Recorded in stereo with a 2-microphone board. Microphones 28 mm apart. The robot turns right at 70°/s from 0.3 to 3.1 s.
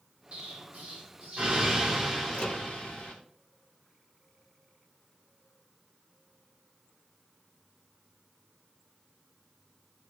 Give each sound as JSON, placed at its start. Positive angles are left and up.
{"t": 0.3, "sound": "an explosion", "azimuth_deg": -130, "distance_m": 8.0}
{"t": 2.3, "sound": "a microwave", "side_deg": 70, "distance_m": 5.5}